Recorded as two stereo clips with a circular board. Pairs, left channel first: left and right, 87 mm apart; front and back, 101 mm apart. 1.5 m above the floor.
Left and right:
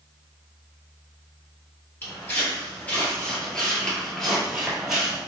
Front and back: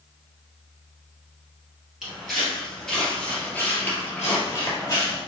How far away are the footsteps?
About 1.7 m.